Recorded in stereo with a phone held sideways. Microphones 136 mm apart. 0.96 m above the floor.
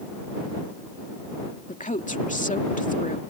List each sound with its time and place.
1.7 s a woman speaking: 70° left (ahead or behind)